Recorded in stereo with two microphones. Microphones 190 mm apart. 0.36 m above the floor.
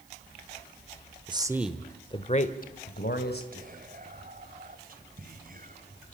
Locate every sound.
1.3 s a man speaking: 25° right (ahead or behind), 0.9 m; by 3.4 s 60° left (ahead or behind), 1.8 m
3.5 s whispering: 50° right (ahead or behind), 2.5 m